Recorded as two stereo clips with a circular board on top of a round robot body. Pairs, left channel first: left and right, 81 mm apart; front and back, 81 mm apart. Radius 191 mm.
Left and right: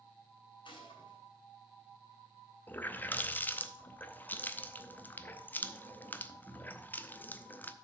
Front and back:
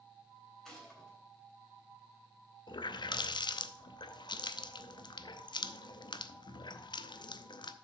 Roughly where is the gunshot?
Left.